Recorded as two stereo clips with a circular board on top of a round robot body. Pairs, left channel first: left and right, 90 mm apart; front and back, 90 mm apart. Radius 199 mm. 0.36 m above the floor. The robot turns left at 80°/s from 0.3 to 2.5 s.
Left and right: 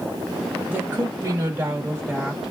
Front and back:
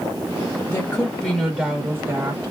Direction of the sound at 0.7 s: 40° right.